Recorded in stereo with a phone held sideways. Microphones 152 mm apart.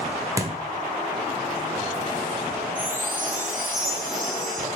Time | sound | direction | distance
0.4 | a thud | 20° right (ahead or behind) | 1.3 m
2.8 | a chime | 60° right (ahead or behind) | 2.0 m